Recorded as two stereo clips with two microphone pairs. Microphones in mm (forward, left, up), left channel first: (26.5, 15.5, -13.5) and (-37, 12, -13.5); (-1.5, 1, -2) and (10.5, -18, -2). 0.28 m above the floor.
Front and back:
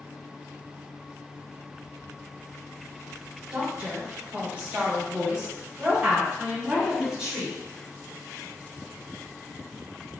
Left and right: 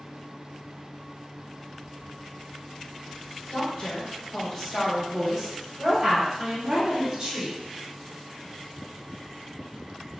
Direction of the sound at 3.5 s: 130° left.